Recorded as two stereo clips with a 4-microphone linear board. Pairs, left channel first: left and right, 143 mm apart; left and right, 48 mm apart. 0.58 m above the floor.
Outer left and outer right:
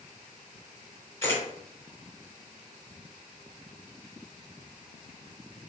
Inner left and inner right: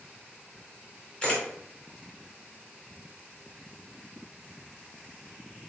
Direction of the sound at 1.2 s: 20° left (ahead or behind).